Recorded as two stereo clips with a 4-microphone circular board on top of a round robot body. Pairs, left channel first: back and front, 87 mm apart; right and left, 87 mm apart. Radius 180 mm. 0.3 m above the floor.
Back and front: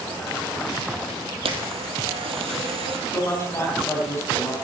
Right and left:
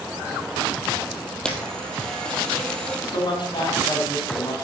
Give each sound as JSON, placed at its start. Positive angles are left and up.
{"t": 1.4, "sound": "a camera shutter", "azimuth_deg": -10, "distance_m": 2.0}
{"t": 3.1, "sound": "a man speaking", "azimuth_deg": -120, "distance_m": 4.5}